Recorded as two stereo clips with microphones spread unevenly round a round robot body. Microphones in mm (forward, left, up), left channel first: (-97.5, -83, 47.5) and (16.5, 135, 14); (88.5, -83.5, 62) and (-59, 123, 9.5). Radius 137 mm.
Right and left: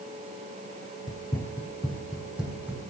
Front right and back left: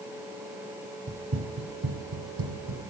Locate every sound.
1.1 s running footsteps: straight behind, 1.0 m; by 2.9 s 150° left, 2.5 m